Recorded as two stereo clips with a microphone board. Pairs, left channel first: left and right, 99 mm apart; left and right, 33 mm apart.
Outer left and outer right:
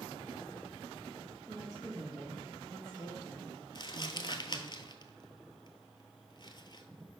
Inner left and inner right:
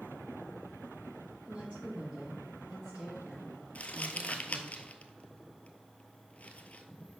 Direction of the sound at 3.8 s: 50° left (ahead or behind).